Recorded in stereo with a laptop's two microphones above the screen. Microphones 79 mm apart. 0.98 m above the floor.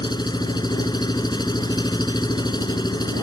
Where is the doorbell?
No doorbell in this recording.